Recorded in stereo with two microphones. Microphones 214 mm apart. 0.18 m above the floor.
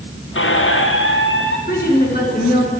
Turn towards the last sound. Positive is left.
turn(degrees=50)  # may be behind; listen again after turning